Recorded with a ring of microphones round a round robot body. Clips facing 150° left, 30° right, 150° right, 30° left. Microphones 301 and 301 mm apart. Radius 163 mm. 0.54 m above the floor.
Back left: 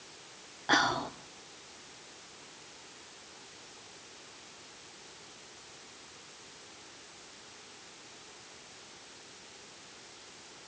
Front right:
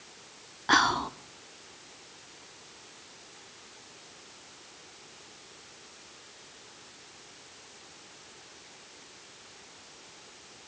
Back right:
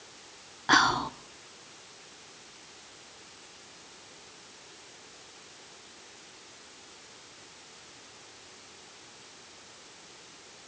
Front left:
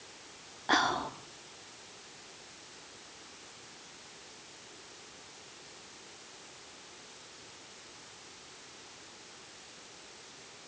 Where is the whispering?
90° right, 1.4 m.